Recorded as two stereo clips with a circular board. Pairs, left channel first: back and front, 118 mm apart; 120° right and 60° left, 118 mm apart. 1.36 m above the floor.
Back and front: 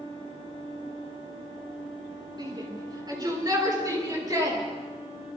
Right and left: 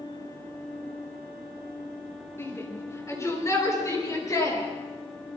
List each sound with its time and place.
2.4 s a shout: 55° right, 4.5 m; by 4.6 s 60° right, 6.5 m